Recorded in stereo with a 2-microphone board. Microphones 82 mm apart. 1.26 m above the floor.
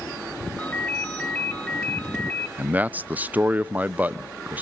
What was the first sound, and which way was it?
A ringtone, 20° left (ahead or behind).